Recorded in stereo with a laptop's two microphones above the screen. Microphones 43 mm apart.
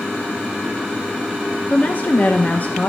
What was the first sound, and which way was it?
A woman speaking, 40° left (ahead or behind).